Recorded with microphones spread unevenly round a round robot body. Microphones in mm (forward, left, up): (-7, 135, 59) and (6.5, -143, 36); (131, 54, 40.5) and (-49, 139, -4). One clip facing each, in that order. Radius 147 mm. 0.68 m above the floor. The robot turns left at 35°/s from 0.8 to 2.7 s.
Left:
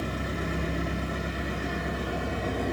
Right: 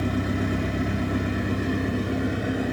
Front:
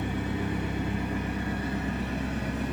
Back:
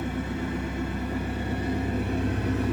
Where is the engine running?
110° right, 0.8 m; by 2.7 s 175° right, 0.8 m.